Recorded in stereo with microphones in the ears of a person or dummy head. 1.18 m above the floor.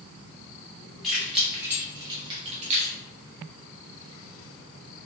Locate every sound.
1.0 s keys jangling: centre (ahead or behind), 1.8 m; by 3.0 s 50° right (ahead or behind), 1.2 m